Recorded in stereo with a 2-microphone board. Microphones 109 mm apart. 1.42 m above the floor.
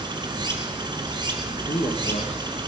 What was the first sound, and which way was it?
Running water, 45° right (ahead or behind).